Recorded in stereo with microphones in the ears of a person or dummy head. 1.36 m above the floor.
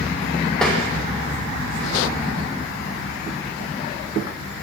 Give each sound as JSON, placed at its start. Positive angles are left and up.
{"t": 0.6, "sound": "tapping", "side_deg": 5, "distance_m": 0.5}